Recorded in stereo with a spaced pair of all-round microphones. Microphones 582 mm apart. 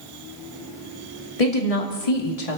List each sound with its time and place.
1.4 s a woman speaking: 75° left (ahead or behind), 2.5 m